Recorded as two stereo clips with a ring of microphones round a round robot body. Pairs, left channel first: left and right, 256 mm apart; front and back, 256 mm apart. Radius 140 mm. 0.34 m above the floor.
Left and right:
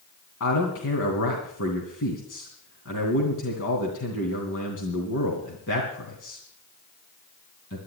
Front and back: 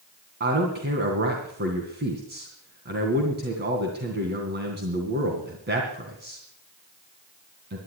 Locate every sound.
0.4 s a man speaking: 130° left, 2.5 m